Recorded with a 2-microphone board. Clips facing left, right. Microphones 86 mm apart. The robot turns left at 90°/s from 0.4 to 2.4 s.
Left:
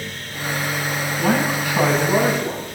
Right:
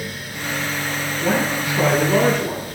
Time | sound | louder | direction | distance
1.2 | a man speaking | left 1 dB | 105° left | 8 m